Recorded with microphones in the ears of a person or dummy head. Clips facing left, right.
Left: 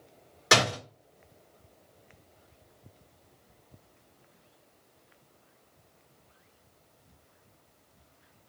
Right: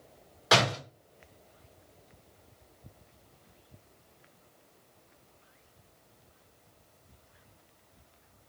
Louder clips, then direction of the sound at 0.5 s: Even; 35° left (ahead or behind).